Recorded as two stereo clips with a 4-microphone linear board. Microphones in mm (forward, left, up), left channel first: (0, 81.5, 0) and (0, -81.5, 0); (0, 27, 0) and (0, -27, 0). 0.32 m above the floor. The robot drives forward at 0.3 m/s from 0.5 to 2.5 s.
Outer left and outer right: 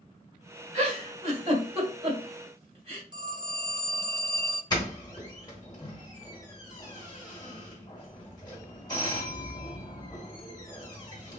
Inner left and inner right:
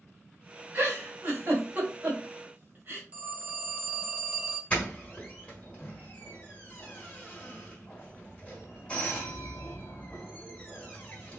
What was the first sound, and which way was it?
A giggle, 40° right (ahead or behind).